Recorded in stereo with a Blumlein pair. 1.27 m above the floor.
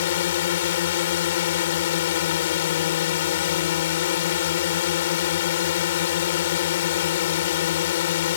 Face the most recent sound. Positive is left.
turn(degrees=55)